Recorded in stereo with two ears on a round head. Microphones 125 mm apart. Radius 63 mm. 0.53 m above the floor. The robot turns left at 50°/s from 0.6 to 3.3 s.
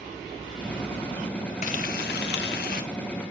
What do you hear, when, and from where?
1.6 s frying: 120° left, 0.8 m; by 2.8 s 60° left, 0.8 m